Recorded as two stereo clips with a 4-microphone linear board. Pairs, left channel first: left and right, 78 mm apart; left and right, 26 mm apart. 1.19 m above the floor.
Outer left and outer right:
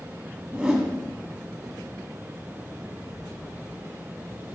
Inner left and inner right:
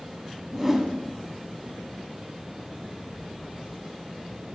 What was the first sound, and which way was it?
A whoosh, 15° right (ahead or behind).